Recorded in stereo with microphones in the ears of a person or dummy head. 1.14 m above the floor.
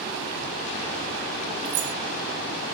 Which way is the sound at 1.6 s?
45° right (ahead or behind).